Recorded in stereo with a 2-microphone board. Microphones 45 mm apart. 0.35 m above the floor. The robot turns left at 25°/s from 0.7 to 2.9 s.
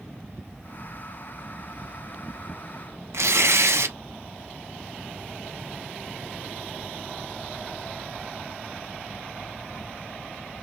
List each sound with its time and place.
3.1 s tearing paper: 85° right, 0.6 m